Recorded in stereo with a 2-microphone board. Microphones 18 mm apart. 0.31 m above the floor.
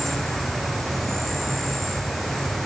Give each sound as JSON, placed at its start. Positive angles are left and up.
{"t": 0.0, "sound": "an insect", "side_deg": 5, "distance_m": 8.0}